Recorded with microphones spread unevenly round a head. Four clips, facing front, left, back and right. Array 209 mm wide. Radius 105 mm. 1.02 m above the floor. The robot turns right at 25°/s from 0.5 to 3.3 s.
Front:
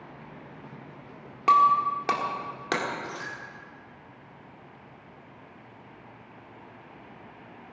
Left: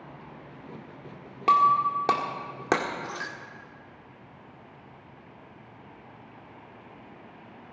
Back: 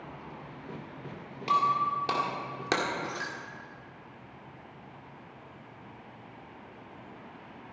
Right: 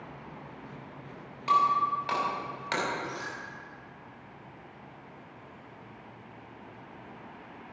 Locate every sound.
1.5 s breaking glass: 65° left, 1.7 m; by 3.3 s 110° left, 1.7 m